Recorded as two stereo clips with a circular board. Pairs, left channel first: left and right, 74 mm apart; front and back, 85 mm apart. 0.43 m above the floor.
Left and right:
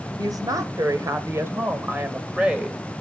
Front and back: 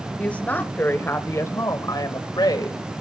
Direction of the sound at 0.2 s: 75° right.